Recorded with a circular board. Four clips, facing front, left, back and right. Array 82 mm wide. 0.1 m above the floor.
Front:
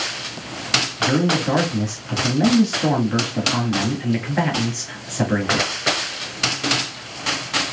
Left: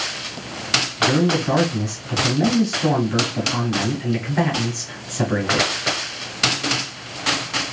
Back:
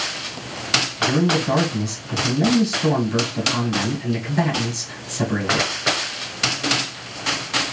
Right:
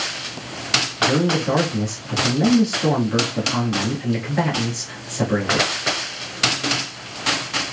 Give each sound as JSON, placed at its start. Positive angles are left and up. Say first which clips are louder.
{"t": 1.0, "sound": "a man speaking", "louder": "left 1 dB, even", "azimuth_deg": 10, "distance_m": 1.3}